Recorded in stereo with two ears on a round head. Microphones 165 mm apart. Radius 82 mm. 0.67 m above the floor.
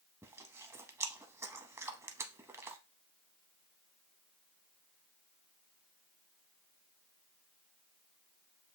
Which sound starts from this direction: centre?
Chewing, at 0.2 s.